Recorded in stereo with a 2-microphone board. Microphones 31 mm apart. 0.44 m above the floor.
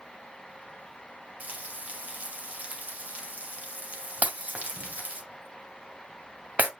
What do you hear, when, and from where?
1.4 s frying: 60° right (ahead or behind), 2 m
4.2 s breaking glass: 65° right (ahead or behind), 1.6 m